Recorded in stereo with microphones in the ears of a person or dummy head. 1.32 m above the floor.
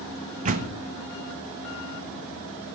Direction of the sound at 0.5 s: 45° right (ahead or behind).